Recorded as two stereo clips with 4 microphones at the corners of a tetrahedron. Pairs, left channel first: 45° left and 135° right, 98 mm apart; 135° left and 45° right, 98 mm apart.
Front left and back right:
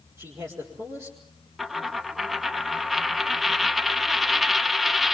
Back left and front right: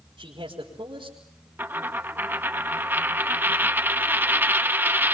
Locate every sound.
0.2 s a man speaking: 75° right, 5.5 m
1.6 s a dropped coin: 45° right, 0.7 m